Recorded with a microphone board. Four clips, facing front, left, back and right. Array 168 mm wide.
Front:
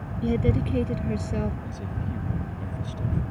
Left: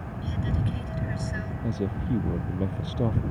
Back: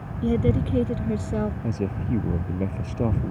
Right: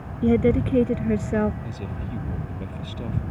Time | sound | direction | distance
0.2 | a woman speaking | 95° right | ?
1.6 | a man speaking | 150° left | ?